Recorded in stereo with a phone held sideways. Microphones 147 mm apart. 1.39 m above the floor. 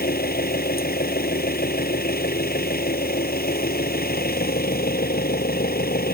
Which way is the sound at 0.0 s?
75° left (ahead or behind).